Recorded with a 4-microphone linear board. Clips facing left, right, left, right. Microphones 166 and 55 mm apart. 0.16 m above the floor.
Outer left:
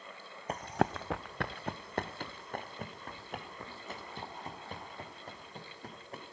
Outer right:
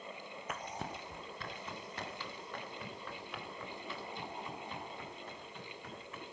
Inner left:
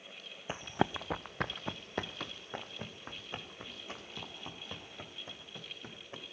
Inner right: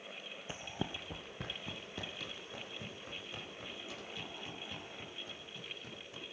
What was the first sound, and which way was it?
Running footsteps, 30° left (ahead or behind).